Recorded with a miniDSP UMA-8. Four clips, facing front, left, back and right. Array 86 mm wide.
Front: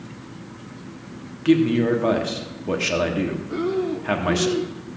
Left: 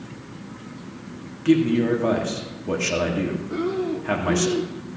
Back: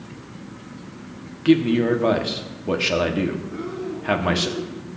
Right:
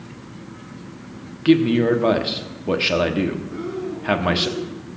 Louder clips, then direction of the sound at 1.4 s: Right 3 dB, back 1 dB; 105° right.